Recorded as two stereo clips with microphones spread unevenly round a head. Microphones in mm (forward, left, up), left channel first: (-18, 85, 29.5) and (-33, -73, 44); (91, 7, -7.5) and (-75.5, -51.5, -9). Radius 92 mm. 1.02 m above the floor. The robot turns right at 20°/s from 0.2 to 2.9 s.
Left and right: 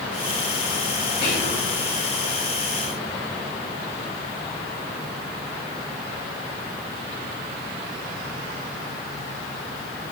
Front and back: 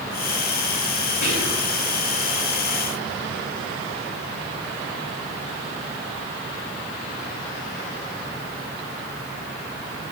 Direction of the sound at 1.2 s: 60° left.